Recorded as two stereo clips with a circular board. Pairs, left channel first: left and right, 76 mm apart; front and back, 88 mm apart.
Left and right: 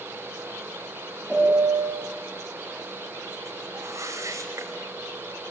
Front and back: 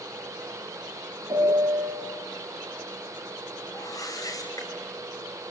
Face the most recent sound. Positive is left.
turn(degrees=-40)